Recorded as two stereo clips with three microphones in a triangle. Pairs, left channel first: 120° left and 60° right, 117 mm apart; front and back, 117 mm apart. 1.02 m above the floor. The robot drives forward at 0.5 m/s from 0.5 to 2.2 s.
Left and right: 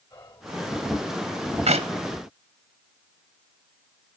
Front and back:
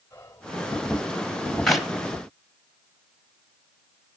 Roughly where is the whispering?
Left.